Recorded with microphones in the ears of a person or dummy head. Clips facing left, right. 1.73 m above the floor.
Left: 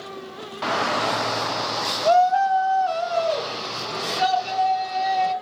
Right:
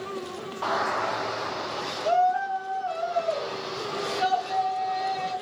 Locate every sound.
0.6 s a shout: 20° left (ahead or behind), 0.6 m; by 5.3 s 60° left (ahead or behind), 3 m